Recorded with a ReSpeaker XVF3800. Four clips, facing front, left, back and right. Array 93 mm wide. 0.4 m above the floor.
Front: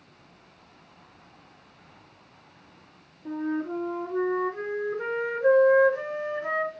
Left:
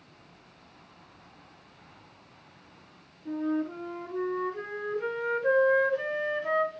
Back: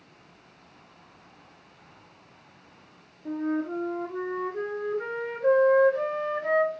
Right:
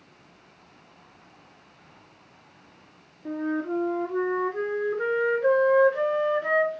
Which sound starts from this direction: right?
A flute, at 3.2 s.